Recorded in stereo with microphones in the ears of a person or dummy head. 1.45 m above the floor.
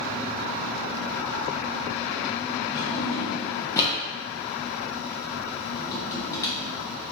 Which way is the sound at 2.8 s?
15° left (ahead or behind).